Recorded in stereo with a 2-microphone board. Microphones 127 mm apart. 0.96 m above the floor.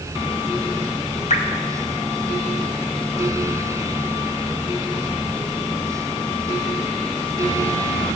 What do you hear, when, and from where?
1.3 s dripping: 65° left (ahead or behind), 1.2 m